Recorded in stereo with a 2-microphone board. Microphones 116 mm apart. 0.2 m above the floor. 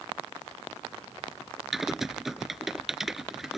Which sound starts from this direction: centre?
Typing on a keyboard, at 1.7 s.